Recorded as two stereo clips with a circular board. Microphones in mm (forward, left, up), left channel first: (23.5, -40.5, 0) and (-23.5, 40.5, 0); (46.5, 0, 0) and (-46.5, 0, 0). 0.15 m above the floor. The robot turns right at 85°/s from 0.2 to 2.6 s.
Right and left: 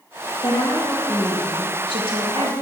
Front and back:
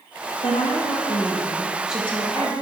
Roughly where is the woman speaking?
Ahead right.